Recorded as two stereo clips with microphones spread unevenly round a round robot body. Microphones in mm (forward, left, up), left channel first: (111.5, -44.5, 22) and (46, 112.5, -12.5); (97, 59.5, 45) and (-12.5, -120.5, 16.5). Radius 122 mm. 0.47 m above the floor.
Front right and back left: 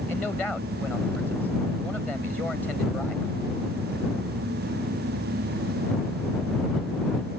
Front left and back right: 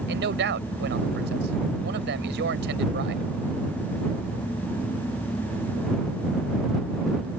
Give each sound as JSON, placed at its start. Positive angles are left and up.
{"t": 0.1, "sound": "a man speaking", "azimuth_deg": -155}